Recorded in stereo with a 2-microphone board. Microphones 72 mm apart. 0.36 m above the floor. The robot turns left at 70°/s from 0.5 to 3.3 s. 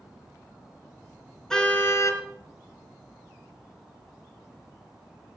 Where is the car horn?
175° left, 2.5 m; by 2.2 s 125° left, 2.5 m.